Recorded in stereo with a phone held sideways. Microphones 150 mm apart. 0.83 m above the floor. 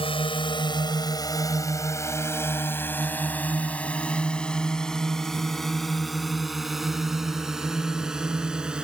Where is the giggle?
No giggle in this recording.